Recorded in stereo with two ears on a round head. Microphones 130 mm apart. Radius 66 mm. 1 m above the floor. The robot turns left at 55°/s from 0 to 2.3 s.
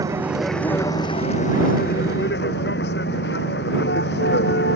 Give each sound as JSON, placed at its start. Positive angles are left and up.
{"t": 0.0, "sound": "a vehicle", "azimuth_deg": -155}